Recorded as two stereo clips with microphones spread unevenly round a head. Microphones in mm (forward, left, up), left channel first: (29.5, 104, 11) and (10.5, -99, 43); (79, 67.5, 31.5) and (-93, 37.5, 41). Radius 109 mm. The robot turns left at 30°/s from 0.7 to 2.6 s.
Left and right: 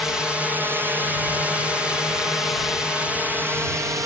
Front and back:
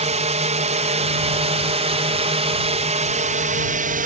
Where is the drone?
165° left; by 4.1 s 175° right.